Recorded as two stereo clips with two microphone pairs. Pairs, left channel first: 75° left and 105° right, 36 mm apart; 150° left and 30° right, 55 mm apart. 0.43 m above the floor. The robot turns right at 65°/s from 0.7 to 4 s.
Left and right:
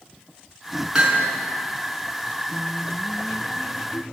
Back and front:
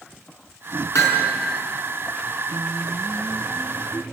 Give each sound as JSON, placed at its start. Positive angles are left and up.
{"t": 0.9, "sound": "hammering", "azimuth_deg": 175, "distance_m": 5.0}
{"t": 2.5, "sound": "singing", "azimuth_deg": -45, "distance_m": 1.7}